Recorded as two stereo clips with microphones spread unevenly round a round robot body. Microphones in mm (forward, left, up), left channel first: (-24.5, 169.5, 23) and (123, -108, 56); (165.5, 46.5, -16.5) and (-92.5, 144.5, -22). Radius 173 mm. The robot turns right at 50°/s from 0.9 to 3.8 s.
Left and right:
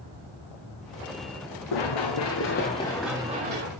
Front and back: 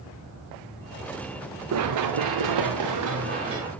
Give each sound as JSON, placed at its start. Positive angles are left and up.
{"t": 1.7, "sound": "running footsteps", "azimuth_deg": 135, "distance_m": 2.5}